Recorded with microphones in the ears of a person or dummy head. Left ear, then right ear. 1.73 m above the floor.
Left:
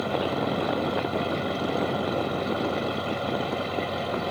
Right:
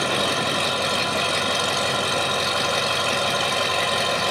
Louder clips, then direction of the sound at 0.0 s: Right 5 dB; 70° right (ahead or behind).